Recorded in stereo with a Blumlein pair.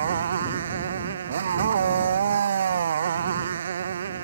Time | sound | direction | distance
0.0 | a motorcycle | 65° right | ?